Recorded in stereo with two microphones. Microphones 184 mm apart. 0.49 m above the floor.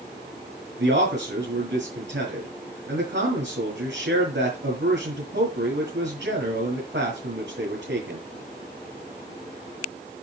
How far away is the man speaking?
About 6.5 m.